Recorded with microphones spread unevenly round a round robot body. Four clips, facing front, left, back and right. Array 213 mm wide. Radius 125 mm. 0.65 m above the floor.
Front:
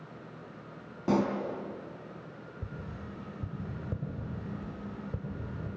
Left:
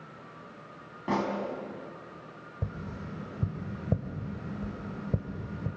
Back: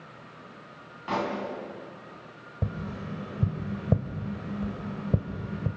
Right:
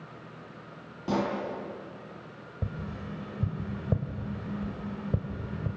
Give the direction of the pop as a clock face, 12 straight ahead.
12 o'clock.